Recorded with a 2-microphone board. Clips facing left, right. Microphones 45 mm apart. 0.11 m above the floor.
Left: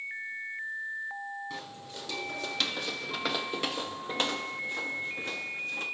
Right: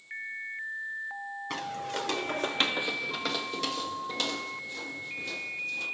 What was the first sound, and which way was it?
Footsteps, 90° right.